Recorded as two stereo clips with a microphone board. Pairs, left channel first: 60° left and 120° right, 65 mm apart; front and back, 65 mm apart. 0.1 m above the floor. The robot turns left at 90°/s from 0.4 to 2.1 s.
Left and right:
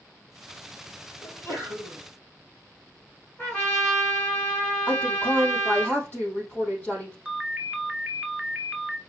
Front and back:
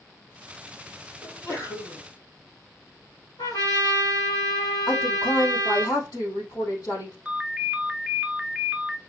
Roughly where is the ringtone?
Behind right.